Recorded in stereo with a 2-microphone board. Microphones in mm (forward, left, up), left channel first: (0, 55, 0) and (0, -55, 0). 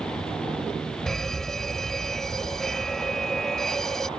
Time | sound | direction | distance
1.1 | an alarm | 5° left (ahead or behind) | ?